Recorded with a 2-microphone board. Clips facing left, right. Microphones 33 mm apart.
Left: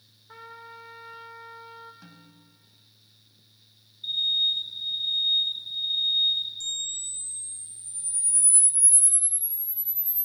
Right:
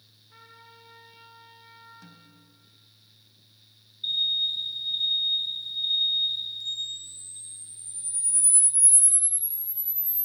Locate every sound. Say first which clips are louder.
0.3 s a trumpet: left 8 dB; 90° left, 3 m
2.0 s a snare drum: left 1 dB; 10° left (ahead or behind), 1.9 m
4.0 s an alarm: left 1 dB; 25° right (ahead or behind), 7 m
6.6 s a camera shutter: even; 25° right (ahead or behind), 2 m